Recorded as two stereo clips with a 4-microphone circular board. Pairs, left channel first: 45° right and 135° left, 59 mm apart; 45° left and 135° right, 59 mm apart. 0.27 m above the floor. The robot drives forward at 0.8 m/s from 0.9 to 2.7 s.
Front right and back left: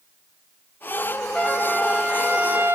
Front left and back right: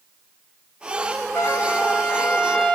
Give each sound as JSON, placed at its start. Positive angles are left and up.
{"t": 1.4, "sound": "a trumpet", "azimuth_deg": 40, "distance_m": 1.3}